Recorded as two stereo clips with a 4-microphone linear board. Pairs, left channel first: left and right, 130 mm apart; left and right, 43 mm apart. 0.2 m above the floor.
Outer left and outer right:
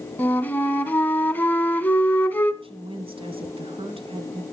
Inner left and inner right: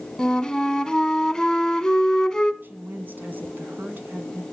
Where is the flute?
15° left (ahead or behind), 0.7 m.